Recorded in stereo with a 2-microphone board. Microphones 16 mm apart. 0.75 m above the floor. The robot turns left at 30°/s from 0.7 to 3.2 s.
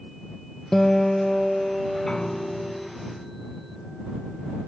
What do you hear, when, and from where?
0.7 s a guitar: 30° left; by 2.9 s 35° right
2.1 s a piano: 50° left; by 4.6 s 15° left